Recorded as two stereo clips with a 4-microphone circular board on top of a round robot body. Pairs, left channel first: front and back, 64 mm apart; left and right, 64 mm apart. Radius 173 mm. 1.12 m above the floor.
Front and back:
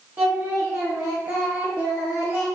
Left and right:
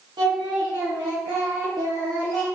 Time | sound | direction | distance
0.2 | singing | 115° right | 0.5 m